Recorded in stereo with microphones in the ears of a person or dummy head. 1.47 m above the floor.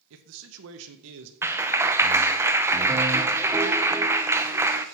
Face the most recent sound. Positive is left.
turn(degrees=-15)  # may be behind; listen again after turning